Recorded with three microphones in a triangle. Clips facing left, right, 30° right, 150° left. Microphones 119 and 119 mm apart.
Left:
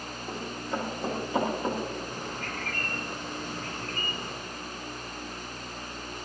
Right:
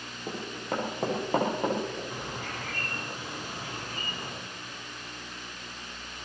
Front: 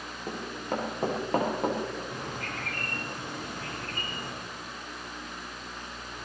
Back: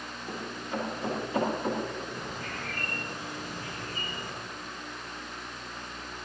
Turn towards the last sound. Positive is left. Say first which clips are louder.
# left 1 dB, front 1 dB
turn(degrees=-10)